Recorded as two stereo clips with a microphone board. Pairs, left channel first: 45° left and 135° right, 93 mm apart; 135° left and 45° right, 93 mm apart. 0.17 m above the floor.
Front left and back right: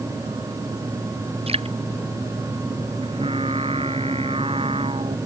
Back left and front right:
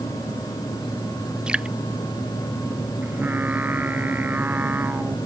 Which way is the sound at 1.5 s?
125° right.